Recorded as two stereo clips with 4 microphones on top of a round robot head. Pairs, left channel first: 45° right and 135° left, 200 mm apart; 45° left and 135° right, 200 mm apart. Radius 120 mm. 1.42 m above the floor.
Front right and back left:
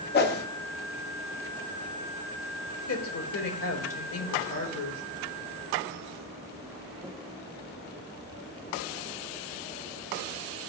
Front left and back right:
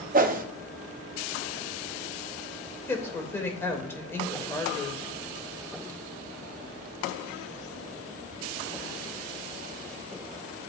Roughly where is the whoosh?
Right.